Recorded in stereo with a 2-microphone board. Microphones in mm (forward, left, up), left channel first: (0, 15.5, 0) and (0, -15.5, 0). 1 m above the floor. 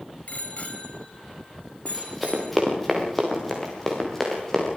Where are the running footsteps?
Centre (ahead or behind), 5.5 m; by 4.7 s 15° left (ahead or behind), 9.5 m.